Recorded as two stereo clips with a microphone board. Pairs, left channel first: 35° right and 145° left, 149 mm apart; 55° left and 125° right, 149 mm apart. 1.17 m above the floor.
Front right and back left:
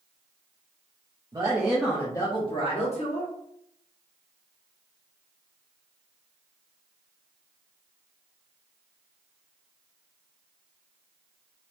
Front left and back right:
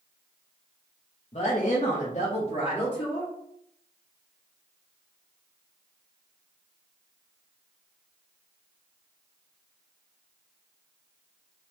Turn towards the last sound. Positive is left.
turn(degrees=-5)